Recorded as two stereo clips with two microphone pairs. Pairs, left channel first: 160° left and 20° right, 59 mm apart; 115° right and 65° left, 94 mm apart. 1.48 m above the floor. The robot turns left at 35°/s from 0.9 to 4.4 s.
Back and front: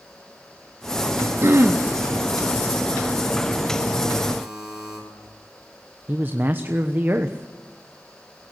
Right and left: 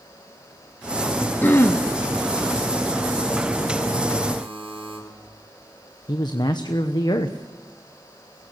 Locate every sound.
1.4 s throat clearing: 45° right, 0.8 m; by 1.8 s 60° right, 0.8 m
4.4 s a buzzer: 60° left, 9 m
6.1 s a man speaking: 75° right, 1.1 m